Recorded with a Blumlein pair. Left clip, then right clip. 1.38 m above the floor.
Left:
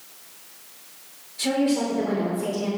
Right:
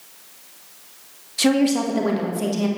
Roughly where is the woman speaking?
Ahead right.